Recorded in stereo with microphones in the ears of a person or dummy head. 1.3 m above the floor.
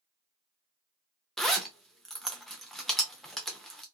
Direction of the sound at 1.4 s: Centre (ahead or behind).